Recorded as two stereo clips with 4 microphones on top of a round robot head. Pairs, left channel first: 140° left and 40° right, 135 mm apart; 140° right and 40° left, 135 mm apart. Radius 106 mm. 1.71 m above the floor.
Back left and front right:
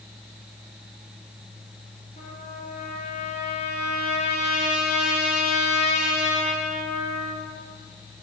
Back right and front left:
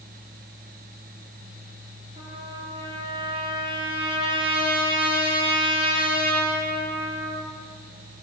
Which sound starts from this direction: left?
A trumpet, at 2.2 s.